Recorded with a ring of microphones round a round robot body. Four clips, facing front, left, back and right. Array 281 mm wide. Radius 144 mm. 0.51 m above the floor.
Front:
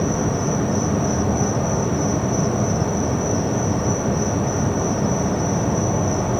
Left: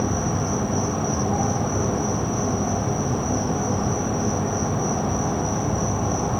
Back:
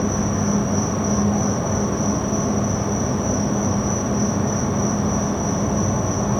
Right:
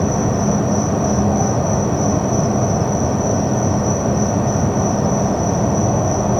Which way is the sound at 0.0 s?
95° right.